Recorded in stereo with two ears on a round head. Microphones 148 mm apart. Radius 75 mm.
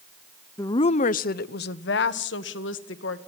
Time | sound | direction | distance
0.6 | a woman speaking | 15° left (ahead or behind) | 0.6 m